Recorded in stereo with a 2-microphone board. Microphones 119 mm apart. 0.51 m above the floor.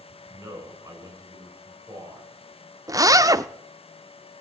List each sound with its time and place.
0.3 s a man speaking: 25° right (ahead or behind), 6 m
2.9 s a zipper: 30° right (ahead or behind), 0.5 m